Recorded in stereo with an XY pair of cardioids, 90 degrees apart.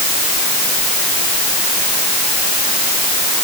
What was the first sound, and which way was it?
Only background noise.